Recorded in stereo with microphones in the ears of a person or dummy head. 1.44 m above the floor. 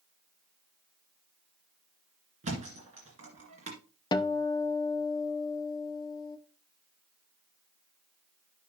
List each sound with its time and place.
2.4 s a thud: 30° right (ahead or behind), 2 m
4.1 s a guitar: 20° left (ahead or behind), 0.6 m